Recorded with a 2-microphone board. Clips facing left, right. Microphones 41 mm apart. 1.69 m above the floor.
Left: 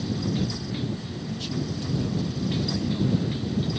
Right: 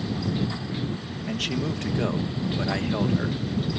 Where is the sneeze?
No sneeze in this recording.